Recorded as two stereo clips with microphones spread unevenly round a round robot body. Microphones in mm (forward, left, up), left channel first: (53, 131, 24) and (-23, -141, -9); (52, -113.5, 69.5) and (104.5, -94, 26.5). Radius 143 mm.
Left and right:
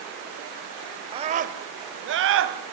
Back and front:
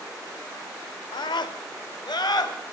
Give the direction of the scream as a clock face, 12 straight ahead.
5 o'clock.